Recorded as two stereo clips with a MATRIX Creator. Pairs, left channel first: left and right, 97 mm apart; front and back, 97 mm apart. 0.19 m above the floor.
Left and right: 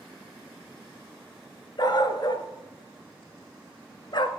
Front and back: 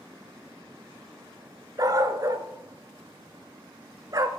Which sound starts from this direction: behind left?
A dog barking, at 1.8 s.